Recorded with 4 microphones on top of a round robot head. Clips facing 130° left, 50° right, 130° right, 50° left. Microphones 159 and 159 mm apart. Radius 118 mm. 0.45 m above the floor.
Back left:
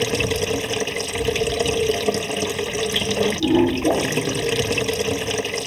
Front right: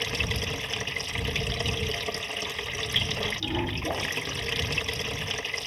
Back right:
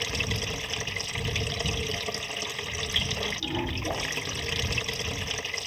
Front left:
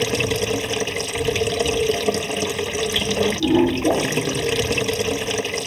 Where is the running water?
85° left.